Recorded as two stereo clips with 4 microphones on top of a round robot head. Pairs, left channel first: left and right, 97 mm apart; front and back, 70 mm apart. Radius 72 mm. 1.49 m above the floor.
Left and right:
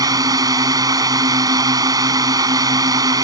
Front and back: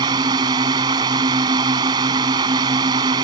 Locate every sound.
0.0 s a drone: 140° right